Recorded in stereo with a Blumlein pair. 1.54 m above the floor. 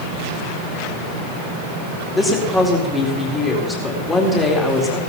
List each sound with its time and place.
2.1 s a woman speaking: 10° left, 4 m